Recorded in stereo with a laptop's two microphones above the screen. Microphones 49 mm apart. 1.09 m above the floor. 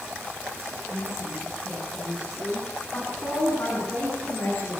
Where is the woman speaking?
70° left (ahead or behind), 8 m; by 4.8 s 55° left (ahead or behind), 11 m.